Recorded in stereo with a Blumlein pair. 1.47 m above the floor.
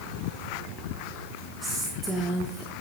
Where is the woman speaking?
15° right, 1.4 m.